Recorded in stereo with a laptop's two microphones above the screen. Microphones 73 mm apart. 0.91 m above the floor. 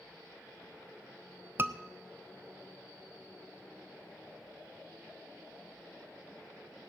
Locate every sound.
1.6 s a scream: 35° right (ahead or behind), 0.5 m